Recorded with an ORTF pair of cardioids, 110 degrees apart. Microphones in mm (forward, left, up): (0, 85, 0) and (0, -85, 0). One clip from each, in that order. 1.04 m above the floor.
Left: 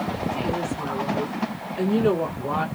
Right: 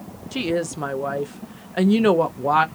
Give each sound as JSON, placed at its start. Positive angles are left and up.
{"t": 0.3, "sound": "a woman speaking", "azimuth_deg": -65, "distance_m": 0.6}